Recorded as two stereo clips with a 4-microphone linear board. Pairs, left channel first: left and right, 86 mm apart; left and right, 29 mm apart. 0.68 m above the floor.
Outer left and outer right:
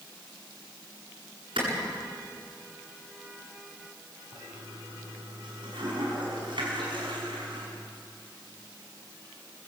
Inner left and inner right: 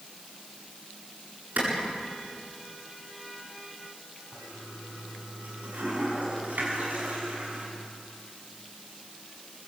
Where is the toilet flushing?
75° right (ahead or behind), 6.5 m.